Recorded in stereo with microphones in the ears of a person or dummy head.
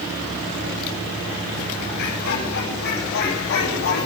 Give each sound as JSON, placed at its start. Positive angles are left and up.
{"t": 2.0, "sound": "laughter", "side_deg": 80, "distance_m": 9.0}